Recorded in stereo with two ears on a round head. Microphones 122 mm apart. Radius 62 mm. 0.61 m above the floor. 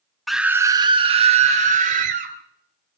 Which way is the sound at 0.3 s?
Centre (ahead or behind).